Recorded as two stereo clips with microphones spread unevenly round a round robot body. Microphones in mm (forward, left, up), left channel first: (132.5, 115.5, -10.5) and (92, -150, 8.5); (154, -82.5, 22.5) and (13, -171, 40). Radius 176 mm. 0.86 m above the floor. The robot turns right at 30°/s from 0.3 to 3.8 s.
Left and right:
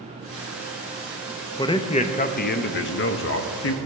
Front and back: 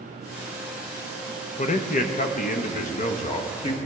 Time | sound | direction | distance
1.6 | a man speaking | 10° left | 0.7 m